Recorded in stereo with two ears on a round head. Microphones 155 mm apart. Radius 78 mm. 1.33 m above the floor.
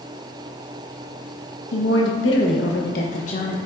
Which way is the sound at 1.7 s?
90° left.